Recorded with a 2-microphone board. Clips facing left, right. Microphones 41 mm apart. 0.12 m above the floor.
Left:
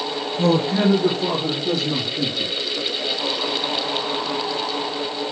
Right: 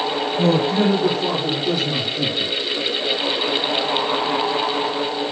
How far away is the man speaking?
About 1.5 m.